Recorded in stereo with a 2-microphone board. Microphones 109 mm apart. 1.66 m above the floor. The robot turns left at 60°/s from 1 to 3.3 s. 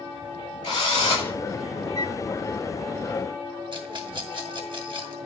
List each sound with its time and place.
0.6 s a drill: 40° left (ahead or behind), 5.5 m; by 1.3 s 20° left (ahead or behind), 5.5 m
1.9 s a flute: 85° right, 0.7 m; by 2.2 s 75° right (ahead or behind), 0.7 m
3.7 s a rattle: 50° right (ahead or behind), 2.5 m